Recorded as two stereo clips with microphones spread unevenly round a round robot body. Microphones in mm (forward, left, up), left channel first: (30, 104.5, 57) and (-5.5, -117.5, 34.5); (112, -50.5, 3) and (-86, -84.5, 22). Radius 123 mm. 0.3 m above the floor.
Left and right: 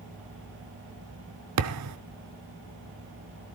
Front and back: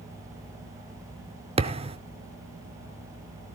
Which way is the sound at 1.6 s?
110° right.